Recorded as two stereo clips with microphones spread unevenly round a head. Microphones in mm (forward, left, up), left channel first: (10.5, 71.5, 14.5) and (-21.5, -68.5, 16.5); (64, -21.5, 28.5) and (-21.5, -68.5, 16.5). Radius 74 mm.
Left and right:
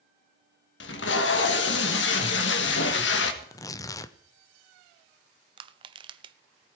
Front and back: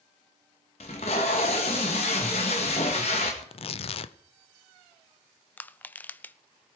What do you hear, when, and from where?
0.8 s tape being pulled: 75° left, 1.7 m
3.4 s tearing paper: 10° left, 0.7 m
5.6 s crushing: 40° right, 0.7 m